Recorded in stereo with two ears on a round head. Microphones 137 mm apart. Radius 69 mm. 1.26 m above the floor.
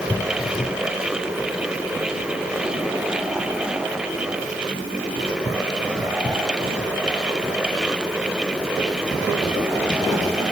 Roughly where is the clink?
No clink in this recording.